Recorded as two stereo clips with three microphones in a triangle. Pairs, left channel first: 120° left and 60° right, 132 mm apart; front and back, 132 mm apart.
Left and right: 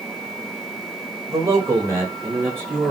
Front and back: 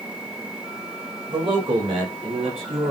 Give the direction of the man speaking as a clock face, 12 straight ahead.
4 o'clock.